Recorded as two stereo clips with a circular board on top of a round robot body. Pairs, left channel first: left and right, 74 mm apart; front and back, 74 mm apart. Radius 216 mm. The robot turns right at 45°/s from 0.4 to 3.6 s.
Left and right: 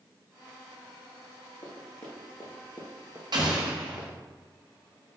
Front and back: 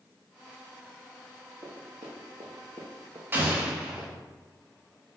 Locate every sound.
1.6 s running footsteps: 145° left, 1.4 m; by 4.2 s 60° left, 1.0 m
3.3 s an explosion: 115° right, 1.1 m; by 4.1 s 105° right, 1.1 m